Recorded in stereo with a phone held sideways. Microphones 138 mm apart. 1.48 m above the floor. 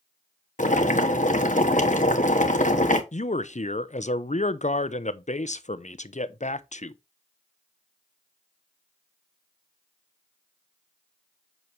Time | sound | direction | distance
0.6 | boiling | 65° left (ahead or behind) | 1.4 m
3.1 | a man speaking | 60° left (ahead or behind) | 0.7 m